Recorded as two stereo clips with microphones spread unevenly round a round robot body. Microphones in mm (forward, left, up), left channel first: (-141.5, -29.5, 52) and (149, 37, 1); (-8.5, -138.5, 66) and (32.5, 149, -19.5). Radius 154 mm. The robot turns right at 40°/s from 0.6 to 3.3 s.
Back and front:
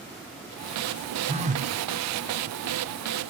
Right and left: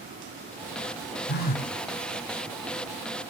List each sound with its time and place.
1.3 s a phone buzzing: 40° right, 1.2 m; by 1.7 s 20° right, 1.2 m